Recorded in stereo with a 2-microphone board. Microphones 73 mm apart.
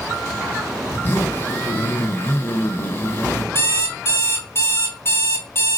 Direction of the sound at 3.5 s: 35° left (ahead or behind).